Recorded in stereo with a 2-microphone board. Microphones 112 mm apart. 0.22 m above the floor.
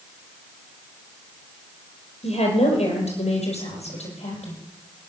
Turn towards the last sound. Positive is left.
turn(degrees=75)  # may be behind; listen again after turning